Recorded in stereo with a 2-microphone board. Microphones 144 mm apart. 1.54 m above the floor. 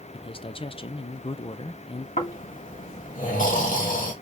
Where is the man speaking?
40° left (ahead or behind), 0.5 m.